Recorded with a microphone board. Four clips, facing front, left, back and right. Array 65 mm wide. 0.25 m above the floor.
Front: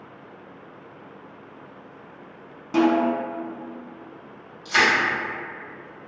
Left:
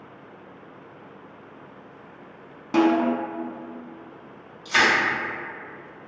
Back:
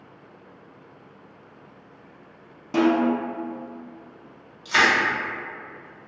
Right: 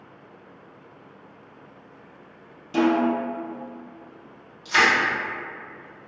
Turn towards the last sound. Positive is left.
turn(degrees=160)